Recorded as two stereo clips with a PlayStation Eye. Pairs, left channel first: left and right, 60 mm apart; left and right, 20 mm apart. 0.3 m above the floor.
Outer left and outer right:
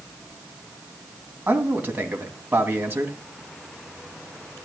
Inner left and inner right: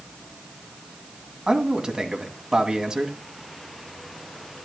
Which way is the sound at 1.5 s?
30° right (ahead or behind).